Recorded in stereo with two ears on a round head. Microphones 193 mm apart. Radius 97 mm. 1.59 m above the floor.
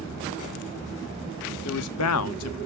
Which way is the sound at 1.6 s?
80° left.